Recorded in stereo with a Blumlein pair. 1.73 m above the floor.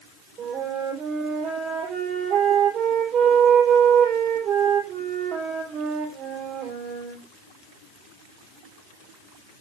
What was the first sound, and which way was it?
A flute, 30° right.